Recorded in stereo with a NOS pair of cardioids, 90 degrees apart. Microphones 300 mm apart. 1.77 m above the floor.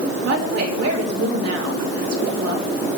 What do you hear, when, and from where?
0.2 s a woman speaking: 55° right, 3.5 m